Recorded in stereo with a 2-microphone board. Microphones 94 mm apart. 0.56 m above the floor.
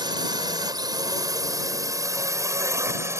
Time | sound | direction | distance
0.0 | a drone | 50° right (ahead or behind) | ?